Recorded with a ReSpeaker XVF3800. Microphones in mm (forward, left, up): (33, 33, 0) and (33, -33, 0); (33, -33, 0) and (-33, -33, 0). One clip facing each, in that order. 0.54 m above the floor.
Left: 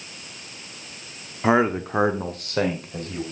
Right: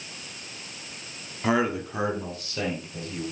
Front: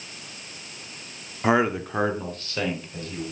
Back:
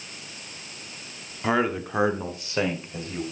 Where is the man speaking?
50° left, 0.9 m; by 3.2 s 120° left, 2.5 m.